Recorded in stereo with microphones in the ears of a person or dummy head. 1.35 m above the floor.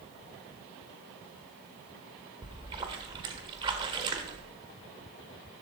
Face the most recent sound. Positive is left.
turn(degrees=-30)  # may be behind; listen again after turning